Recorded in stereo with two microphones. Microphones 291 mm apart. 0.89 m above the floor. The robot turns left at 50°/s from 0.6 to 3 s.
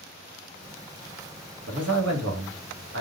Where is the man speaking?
60° right, 0.9 m; by 3.0 s 125° right, 0.9 m.